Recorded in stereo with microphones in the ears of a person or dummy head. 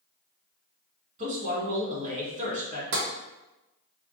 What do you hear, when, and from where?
1.2 s a man speaking: 40° right (ahead or behind), 1.7 m
2.9 s tapping: 65° right (ahead or behind), 1.3 m